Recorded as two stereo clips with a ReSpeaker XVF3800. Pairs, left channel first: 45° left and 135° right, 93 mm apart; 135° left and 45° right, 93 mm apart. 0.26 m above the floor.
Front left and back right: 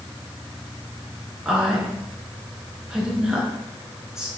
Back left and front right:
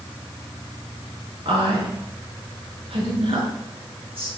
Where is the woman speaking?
55° right, 4.5 m.